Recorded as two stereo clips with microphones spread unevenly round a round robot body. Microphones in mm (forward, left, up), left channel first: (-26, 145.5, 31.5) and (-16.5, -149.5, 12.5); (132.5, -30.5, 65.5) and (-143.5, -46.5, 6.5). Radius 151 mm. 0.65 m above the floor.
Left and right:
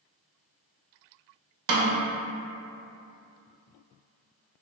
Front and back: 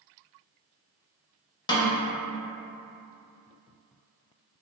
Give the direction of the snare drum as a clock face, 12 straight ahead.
2 o'clock.